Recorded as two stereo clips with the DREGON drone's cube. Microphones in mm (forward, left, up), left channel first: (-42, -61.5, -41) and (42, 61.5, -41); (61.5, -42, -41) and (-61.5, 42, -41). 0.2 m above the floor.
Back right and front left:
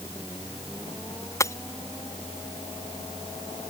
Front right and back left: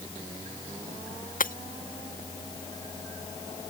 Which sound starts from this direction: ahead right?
Breaking glass, at 1.4 s.